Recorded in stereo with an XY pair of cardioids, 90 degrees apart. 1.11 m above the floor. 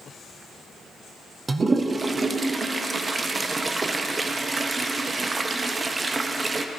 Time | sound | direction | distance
1.5 | a toilet flushing | 35° right | 0.6 m